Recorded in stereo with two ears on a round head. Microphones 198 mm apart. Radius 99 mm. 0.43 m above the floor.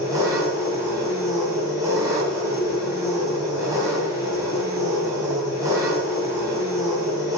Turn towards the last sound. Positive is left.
turn(degrees=-15)  # may be behind; listen again after turning